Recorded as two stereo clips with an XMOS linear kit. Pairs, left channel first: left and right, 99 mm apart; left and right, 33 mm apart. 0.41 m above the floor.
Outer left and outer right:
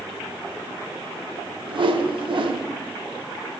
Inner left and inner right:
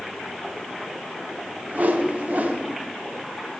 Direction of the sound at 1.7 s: 60° right (ahead or behind).